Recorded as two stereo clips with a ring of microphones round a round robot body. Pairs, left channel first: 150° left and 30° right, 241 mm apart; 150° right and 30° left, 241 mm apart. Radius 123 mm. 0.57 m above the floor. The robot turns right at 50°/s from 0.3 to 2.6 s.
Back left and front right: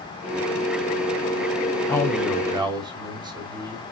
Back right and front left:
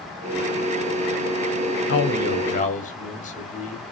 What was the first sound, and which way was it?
A man speaking, 135° right.